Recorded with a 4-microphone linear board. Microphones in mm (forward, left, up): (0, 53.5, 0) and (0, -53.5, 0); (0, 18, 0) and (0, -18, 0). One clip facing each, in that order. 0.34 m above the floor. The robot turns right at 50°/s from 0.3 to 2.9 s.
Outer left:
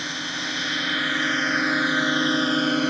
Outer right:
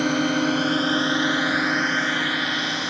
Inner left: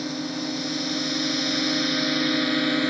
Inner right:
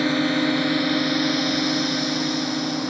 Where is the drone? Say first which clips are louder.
Outer right 12 dB, inner right 9 dB; 55° right (ahead or behind); by 2.9 s 50° left (ahead or behind).